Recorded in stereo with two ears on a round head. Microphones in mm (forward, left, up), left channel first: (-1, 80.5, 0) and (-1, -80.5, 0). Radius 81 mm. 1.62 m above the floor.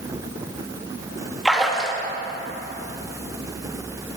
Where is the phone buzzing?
No phone buzzing in this recording.